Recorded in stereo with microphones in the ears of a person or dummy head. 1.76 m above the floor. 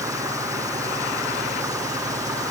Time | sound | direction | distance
0.0 | an engine running | 15° right (ahead or behind) | ?